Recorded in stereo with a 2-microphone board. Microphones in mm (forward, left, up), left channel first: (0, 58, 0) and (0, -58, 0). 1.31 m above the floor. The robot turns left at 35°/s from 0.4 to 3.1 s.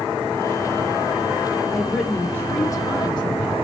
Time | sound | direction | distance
1.7 | a woman speaking | 175° right | 1.2 m